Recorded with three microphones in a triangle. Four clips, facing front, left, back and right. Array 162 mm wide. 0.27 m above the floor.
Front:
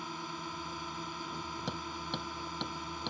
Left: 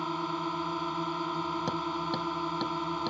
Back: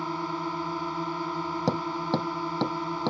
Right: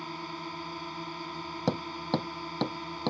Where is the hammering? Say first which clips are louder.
Right 1 dB, back 14 dB; 150° right.